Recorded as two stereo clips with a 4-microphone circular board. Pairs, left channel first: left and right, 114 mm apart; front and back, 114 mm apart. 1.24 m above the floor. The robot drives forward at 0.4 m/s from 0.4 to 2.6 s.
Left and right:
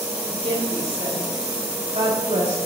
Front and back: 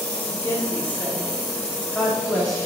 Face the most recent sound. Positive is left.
turn(degrees=-90)